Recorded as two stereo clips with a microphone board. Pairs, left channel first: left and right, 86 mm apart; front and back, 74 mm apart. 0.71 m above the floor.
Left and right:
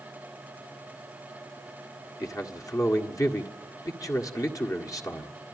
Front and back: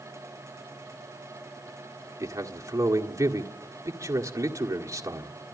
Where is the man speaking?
135° left, 1.7 m.